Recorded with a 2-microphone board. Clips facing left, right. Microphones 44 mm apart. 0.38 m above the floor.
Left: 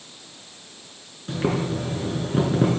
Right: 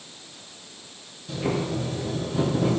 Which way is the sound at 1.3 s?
50° left (ahead or behind).